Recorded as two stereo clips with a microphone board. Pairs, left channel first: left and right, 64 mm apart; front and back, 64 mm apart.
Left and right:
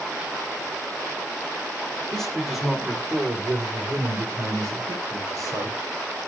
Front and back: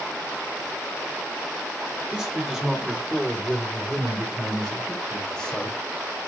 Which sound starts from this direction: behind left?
A man speaking, at 2.1 s.